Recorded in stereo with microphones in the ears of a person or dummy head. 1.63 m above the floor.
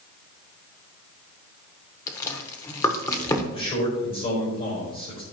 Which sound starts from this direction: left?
A man speaking, at 3.5 s.